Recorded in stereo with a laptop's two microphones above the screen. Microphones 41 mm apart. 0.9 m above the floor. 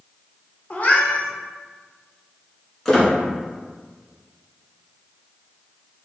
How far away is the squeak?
About 1.3 m.